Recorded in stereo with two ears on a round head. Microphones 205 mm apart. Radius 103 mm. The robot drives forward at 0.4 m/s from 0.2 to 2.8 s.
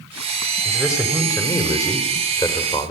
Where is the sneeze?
I don't hear a sneeze.